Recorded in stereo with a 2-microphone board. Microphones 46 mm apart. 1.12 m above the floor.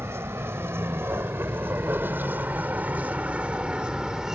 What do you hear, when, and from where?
0.0 s a vehicle: 75° right (ahead or behind); by 4.4 s 15° right (ahead or behind)